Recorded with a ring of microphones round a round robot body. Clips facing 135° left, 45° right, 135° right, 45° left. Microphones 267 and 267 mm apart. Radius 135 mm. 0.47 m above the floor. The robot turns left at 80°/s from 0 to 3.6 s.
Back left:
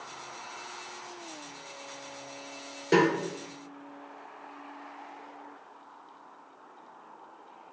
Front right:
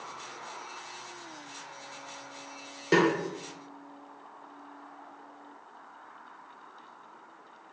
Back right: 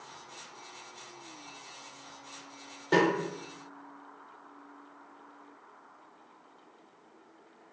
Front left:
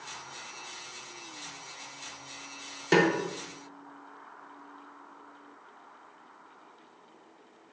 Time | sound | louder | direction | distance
2.9 | a snare drum | back left 1 dB, front left 2 dB | 35° left | 0.6 m